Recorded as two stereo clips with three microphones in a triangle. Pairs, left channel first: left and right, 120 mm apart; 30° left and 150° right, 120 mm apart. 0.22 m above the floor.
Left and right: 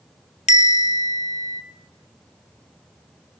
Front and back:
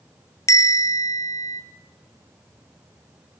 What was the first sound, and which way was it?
A bell, 90° left.